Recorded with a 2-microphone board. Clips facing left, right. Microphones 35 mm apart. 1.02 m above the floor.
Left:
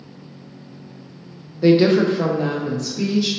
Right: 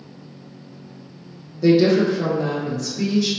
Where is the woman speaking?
40° left (ahead or behind), 0.5 m; by 3.3 s 30° left (ahead or behind), 1.1 m.